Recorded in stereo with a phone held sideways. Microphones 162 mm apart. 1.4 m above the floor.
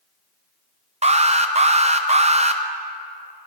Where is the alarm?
45° right (ahead or behind), 0.5 m.